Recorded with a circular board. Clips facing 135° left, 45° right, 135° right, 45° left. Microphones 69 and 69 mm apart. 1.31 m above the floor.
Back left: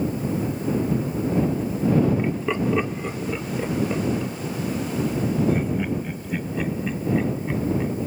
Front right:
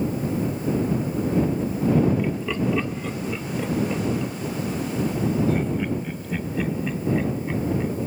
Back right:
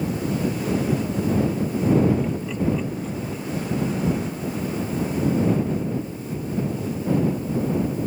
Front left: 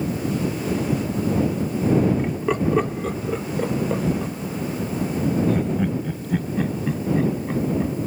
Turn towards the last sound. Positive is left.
turn(degrees=50)